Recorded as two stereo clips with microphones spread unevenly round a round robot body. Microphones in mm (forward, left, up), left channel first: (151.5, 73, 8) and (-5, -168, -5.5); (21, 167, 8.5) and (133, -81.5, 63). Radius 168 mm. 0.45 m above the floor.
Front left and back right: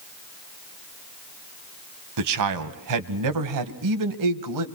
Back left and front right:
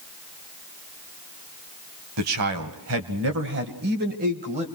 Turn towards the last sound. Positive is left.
turn(degrees=-140)